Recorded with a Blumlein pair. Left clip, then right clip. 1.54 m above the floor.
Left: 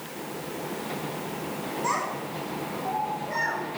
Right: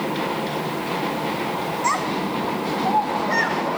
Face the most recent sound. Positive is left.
turn(degrees=-35)